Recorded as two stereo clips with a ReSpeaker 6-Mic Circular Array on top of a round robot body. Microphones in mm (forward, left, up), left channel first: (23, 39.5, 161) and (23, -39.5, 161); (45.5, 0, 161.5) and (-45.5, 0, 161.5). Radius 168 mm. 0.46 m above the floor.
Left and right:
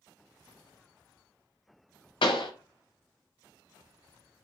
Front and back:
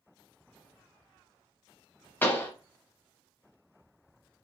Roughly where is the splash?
No splash in this recording.